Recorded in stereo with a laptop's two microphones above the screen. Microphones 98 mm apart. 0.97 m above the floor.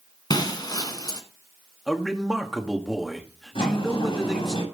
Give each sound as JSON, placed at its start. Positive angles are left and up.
{"t": 0.3, "sound": "breaking glass", "side_deg": 40, "distance_m": 1.5}
{"t": 1.9, "sound": "a man speaking", "side_deg": -5, "distance_m": 1.4}
{"t": 3.5, "sound": "a sliding door", "side_deg": 60, "distance_m": 6.0}